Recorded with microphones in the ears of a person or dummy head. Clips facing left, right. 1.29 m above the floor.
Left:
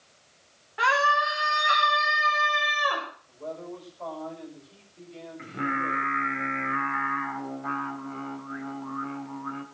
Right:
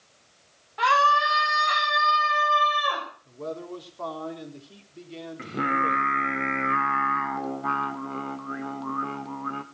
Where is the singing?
55° right (ahead or behind), 1.3 m.